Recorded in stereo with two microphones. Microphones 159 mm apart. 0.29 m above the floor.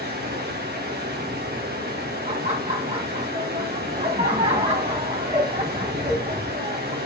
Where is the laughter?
45° right (ahead or behind), 1.8 m.